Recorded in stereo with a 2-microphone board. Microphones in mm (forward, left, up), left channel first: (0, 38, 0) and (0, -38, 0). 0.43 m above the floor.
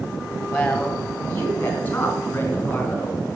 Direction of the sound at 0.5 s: 35° left (ahead or behind).